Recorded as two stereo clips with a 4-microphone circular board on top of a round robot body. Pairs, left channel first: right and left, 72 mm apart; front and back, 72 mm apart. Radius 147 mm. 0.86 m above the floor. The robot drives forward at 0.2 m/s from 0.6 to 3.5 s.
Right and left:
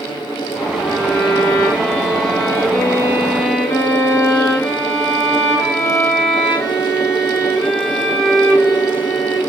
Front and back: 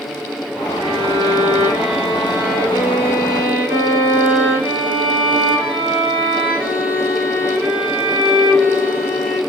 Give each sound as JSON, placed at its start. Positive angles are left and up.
{"t": 0.8, "sound": "a violin", "azimuth_deg": -120, "distance_m": 0.5}